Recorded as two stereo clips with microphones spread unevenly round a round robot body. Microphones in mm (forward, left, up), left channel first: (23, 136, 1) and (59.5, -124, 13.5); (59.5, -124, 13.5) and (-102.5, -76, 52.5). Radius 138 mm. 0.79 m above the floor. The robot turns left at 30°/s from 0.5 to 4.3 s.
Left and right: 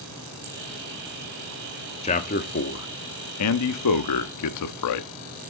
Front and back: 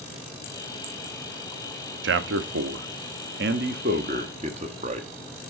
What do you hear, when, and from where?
2.0 s a man speaking: 165° left, 1.0 m; by 5.1 s 95° left, 1.0 m